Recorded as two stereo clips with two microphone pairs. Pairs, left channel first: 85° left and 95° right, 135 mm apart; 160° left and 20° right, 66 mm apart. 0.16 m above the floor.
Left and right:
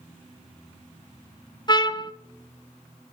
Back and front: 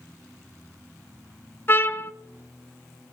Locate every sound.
1.7 s a trumpet: 130° left, 0.6 m